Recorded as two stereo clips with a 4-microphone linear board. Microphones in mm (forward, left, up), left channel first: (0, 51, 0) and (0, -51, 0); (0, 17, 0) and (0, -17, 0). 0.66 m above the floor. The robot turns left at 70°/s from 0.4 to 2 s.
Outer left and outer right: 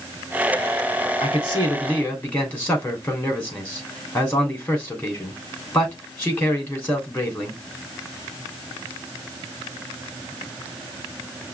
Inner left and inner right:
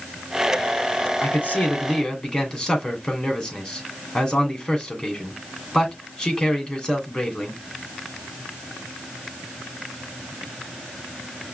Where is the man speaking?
70° left, 2.5 m; by 7.6 s 15° left, 2.5 m.